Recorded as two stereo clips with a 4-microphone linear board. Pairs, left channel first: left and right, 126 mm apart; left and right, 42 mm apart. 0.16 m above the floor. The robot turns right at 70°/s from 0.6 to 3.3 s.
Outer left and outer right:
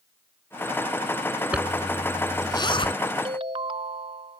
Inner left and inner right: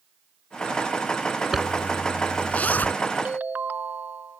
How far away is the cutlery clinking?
No cutlery clinking in this recording.